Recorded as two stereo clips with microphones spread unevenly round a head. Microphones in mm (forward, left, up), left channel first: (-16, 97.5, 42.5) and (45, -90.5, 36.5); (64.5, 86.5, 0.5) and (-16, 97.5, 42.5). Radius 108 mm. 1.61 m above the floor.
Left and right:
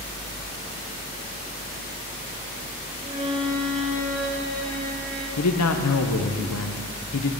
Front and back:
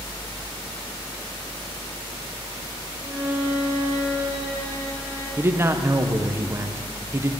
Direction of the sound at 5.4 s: 120° left.